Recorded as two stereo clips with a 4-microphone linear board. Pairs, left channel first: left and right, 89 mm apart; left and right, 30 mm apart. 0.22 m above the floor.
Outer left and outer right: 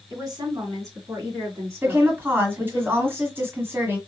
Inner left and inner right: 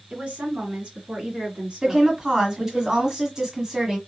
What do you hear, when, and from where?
0.1 s a woman speaking: 40° right (ahead or behind), 2.0 m; by 2.8 s 30° right (ahead or behind), 3 m
1.8 s a woman speaking: 25° right (ahead or behind), 1.5 m